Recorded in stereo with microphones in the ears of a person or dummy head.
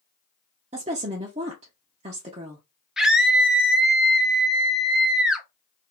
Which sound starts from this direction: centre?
A scream, at 3.0 s.